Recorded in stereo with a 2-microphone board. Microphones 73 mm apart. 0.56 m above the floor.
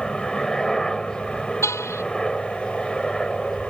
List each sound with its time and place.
0.0 s a helicopter: 5° left (ahead or behind)
1.6 s a car horn: 40° left (ahead or behind)